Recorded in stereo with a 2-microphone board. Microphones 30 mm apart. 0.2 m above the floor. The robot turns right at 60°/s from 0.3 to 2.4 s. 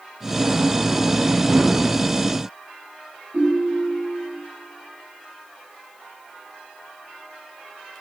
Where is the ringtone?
55° right (ahead or behind), 7 m.